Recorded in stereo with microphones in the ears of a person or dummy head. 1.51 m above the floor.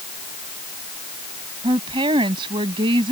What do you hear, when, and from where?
1.6 s a woman speaking: 25° right (ahead or behind)